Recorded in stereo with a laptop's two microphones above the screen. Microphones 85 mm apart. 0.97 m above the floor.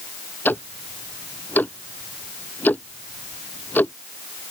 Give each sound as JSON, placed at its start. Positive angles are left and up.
{"t": 0.5, "sound": "ticking", "side_deg": 20}